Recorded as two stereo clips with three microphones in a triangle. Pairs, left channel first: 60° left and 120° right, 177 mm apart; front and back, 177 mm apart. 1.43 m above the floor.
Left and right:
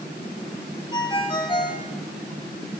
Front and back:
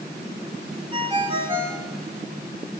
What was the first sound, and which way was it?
A ringtone, 125° left.